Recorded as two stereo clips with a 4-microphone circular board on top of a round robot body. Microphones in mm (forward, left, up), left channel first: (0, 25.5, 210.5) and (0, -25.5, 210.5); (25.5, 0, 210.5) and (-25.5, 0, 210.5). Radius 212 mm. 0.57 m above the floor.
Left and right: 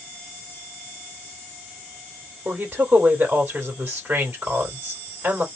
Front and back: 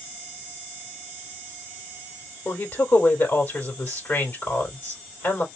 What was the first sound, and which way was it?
A woman speaking, 35° right.